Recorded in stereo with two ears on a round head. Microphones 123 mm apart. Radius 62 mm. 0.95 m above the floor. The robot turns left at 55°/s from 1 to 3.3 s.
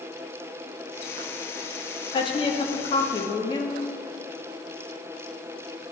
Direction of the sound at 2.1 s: 120° left.